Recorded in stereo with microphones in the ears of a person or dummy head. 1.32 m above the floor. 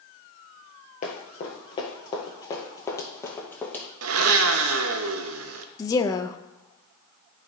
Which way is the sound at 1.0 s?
30° left (ahead or behind).